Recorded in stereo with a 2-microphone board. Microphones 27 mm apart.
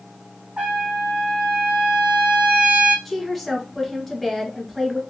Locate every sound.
0.6 s a trumpet: 45° right (ahead or behind), 1.9 m
3.0 s a woman speaking: 10° left (ahead or behind), 1.2 m